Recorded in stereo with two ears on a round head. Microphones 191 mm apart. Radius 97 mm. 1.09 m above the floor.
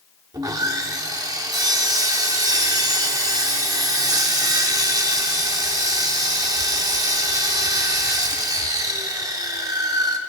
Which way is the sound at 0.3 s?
15° right (ahead or behind).